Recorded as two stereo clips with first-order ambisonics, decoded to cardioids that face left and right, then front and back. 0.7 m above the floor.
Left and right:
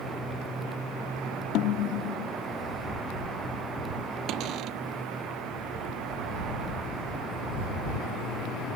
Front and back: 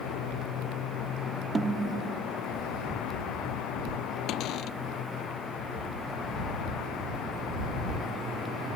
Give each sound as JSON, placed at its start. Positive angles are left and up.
{"t": 1.6, "sound": "a snare drum", "azimuth_deg": 105}
{"t": 4.3, "sound": "a cupboard door", "azimuth_deg": -45}